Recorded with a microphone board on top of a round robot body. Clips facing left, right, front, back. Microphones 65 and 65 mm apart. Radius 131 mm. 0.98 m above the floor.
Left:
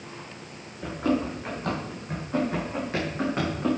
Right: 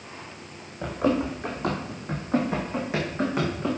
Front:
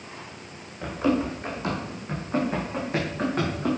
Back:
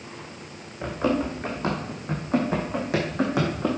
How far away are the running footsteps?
About 3 m.